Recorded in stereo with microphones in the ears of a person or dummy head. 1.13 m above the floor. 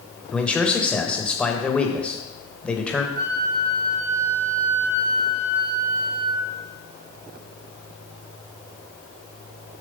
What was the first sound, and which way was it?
A man speaking, 5° left (ahead or behind).